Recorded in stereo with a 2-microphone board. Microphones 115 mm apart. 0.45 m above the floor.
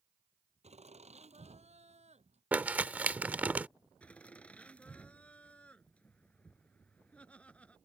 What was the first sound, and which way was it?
Laughter, 85° right.